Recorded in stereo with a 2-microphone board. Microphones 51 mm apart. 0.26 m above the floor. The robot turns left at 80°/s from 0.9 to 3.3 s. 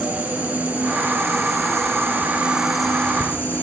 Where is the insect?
30° right, 3 m; by 3.6 s 135° left, 3 m.